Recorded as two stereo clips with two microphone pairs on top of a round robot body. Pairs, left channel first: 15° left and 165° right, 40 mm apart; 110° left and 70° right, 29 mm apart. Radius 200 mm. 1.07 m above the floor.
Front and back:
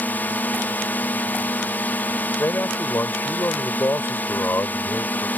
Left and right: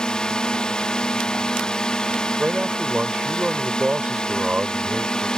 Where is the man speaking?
10° right.